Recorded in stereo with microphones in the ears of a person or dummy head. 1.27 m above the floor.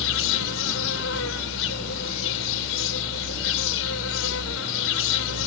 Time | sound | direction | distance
0.0 | an insect | 75° left (ahead or behind) | ?